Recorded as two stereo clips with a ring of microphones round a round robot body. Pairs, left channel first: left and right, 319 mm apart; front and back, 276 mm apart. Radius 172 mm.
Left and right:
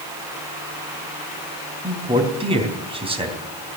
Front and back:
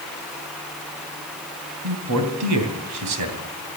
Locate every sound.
1.8 s a man speaking: 160° right, 3 m